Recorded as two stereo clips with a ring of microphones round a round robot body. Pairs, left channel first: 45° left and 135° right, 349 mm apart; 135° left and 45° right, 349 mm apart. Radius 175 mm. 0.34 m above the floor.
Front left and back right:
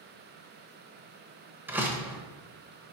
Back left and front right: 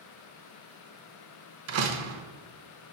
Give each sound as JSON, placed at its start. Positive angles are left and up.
{"t": 1.7, "sound": "a door slam", "azimuth_deg": -55, "distance_m": 0.7}